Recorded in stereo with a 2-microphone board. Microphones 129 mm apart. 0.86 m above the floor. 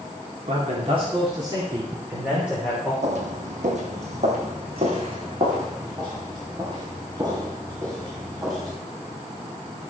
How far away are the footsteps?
About 1.7 m.